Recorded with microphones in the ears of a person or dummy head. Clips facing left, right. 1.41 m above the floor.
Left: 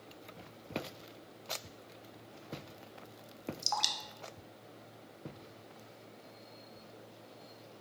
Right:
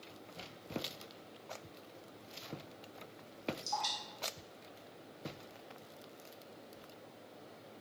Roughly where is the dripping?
Left.